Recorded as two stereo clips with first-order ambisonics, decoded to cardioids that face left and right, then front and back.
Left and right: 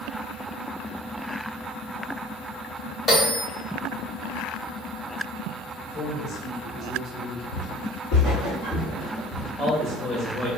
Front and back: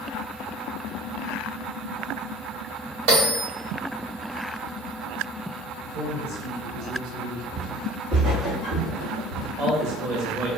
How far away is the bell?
About 1.4 m.